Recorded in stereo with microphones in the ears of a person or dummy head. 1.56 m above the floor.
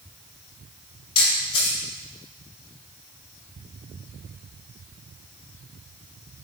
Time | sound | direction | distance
1.1 | a camera shutter | 35° left (ahead or behind) | 2.5 m